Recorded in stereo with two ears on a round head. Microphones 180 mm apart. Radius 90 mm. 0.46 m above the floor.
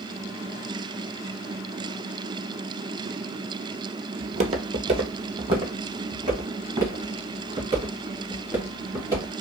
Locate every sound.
4.2 s footsteps: 40° right (ahead or behind), 0.6 m; by 9.3 s 15° right (ahead or behind), 3 m